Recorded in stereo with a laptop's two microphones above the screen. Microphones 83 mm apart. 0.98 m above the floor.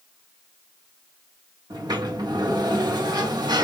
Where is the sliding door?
55° right (ahead or behind), 0.8 m.